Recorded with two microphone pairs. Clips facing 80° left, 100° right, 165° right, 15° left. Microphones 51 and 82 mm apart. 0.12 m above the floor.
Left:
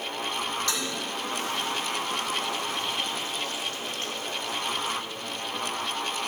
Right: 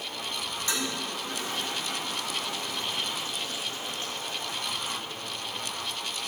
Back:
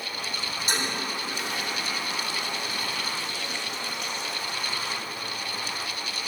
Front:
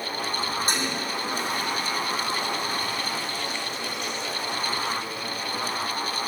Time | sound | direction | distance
0.7 | a toilet flushing | 30° right | 4.5 m